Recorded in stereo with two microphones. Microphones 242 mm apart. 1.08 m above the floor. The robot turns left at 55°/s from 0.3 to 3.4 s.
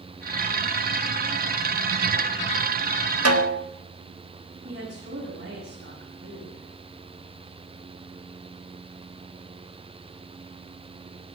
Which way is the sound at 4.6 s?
50° right (ahead or behind).